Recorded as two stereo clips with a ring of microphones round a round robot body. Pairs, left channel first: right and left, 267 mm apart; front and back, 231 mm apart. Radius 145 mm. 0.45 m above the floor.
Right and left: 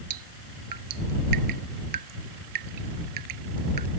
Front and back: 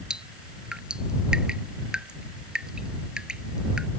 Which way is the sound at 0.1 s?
95° left.